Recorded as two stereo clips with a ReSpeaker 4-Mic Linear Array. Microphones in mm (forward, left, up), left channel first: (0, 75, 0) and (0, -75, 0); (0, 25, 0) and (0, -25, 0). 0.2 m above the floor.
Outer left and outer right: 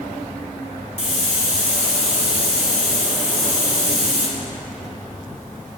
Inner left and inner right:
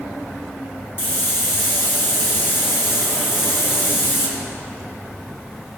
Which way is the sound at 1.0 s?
50° left (ahead or behind).